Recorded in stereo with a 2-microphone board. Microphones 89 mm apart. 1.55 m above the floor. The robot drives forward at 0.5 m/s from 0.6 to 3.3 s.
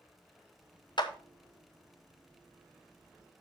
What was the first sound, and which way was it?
A clap, 60° left (ahead or behind).